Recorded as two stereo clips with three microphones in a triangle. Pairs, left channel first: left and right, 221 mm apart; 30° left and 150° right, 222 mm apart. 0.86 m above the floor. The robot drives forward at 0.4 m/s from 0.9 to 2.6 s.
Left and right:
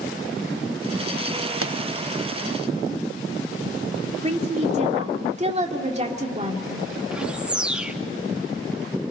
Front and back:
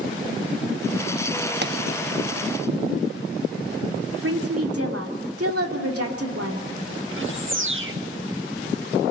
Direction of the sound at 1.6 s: 110° right.